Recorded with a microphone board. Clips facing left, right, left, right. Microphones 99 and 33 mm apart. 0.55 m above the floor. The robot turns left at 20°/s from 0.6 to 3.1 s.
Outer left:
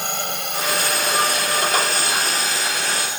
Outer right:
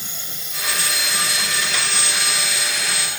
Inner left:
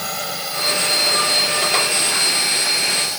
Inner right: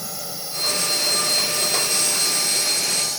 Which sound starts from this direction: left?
A drone, at 0.0 s.